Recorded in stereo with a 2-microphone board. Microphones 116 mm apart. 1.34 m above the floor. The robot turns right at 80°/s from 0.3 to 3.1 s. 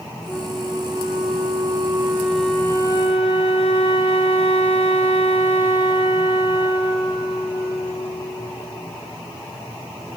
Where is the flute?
165° right, 2.5 m; by 8.9 s 60° left, 2.5 m.